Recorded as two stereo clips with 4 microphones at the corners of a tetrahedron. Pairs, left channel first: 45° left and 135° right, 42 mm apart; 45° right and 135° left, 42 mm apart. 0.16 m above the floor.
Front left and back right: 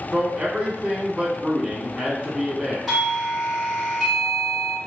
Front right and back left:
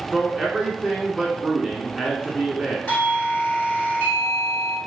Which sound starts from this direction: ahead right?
A doorbell, at 2.9 s.